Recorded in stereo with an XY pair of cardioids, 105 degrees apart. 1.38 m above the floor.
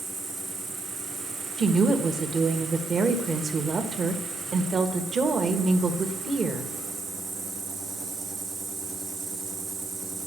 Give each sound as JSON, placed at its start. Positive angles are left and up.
{"t": 0.0, "sound": "an insect", "azimuth_deg": -60, "distance_m": 1.5}
{"t": 1.6, "sound": "a woman speaking", "azimuth_deg": -40, "distance_m": 1.3}